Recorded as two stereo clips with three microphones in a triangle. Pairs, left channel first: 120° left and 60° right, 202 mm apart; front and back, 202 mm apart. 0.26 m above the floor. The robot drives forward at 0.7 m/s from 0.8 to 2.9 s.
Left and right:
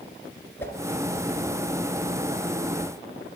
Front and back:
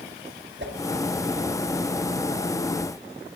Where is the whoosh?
160° right, 2.5 m.